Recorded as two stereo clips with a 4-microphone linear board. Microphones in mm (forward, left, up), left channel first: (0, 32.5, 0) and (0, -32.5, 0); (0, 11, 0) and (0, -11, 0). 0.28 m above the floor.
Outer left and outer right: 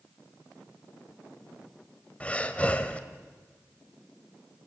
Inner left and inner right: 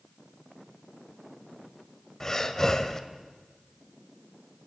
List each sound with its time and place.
2.2 s breathing: 20° left (ahead or behind), 1.2 m